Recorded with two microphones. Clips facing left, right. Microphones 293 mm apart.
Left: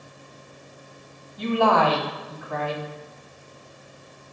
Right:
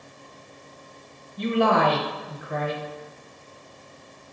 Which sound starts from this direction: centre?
A woman speaking, at 1.4 s.